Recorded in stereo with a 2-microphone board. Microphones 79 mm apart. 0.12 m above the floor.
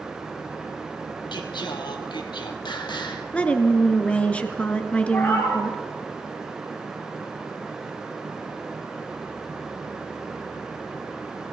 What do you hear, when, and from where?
1.3 s singing: 70° left (ahead or behind), 1.6 m
3.3 s a woman speaking: 15° left (ahead or behind), 1.3 m
5.1 s a cat meowing: 15° left (ahead or behind), 5.5 m